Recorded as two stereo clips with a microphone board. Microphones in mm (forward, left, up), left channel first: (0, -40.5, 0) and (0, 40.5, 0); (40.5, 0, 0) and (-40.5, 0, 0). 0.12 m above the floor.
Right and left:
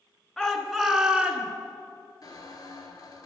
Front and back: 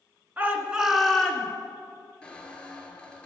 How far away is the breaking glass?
No breaking glass in this recording.